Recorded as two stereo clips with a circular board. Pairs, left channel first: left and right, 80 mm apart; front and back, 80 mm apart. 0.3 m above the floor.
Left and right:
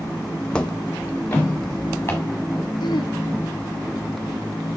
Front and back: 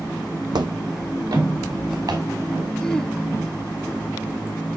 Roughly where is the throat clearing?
Left.